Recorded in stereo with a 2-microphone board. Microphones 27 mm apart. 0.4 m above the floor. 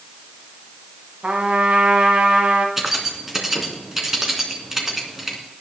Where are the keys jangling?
15° right (ahead or behind), 2.5 m.